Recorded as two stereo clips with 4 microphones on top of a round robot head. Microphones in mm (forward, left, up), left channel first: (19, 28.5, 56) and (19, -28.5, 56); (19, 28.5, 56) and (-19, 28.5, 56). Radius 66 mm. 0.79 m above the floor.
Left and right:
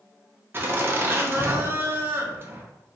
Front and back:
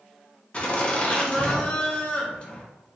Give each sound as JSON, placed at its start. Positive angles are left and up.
{"t": 0.5, "sound": "laughter", "azimuth_deg": -50, "distance_m": 0.9}